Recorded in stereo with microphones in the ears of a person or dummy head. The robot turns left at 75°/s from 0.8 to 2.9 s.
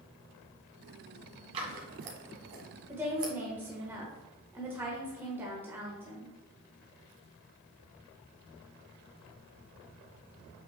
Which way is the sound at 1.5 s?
30° right (ahead or behind).